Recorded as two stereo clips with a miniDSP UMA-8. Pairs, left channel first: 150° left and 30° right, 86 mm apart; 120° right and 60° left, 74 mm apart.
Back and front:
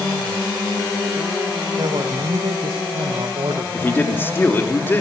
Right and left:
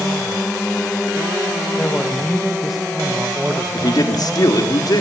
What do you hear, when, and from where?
1.8 s a man speaking: 50° right, 1.5 m; by 3.6 s 5° left, 1.2 m
3.7 s a man speaking: 145° right, 3.5 m